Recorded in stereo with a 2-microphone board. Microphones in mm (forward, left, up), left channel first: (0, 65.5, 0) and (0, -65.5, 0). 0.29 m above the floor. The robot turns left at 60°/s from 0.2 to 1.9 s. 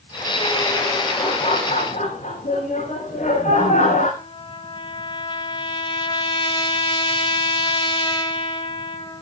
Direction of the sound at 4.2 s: 40° left (ahead or behind).